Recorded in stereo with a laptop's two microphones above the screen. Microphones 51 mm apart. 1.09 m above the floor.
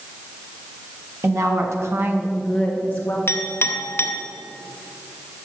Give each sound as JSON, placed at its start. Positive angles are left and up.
{"t": 1.2, "sound": "a woman speaking", "side_deg": -75, "distance_m": 1.5}
{"t": 3.3, "sound": "a clink", "side_deg": 50, "distance_m": 0.6}